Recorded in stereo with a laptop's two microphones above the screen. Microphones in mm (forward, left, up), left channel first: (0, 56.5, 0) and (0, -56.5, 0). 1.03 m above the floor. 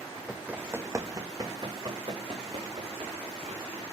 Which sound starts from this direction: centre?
Running footsteps, at 0.3 s.